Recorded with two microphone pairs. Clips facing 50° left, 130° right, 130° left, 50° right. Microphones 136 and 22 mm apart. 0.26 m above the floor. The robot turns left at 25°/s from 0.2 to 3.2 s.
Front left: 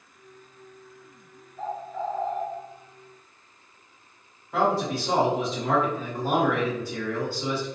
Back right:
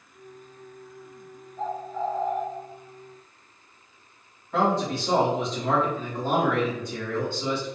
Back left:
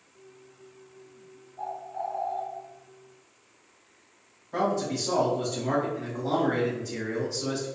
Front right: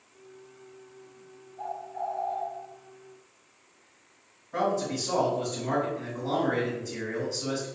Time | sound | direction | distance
1.6 | a bird | 170° right | 1.4 m
4.5 | a man speaking | 125° left | 1.5 m